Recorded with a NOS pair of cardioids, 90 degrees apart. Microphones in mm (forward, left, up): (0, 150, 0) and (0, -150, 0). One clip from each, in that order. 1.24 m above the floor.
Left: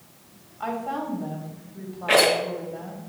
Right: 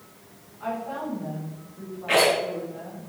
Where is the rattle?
30° left, 3.5 m.